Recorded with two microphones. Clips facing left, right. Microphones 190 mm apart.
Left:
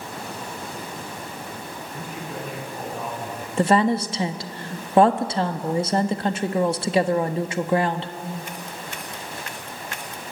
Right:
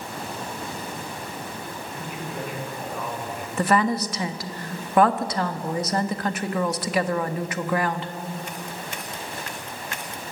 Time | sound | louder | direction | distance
1.9 | a man speaking | even | 40° left (ahead or behind) | 9 m
3.6 | a woman speaking | left 3 dB | 25° left (ahead or behind) | 1.2 m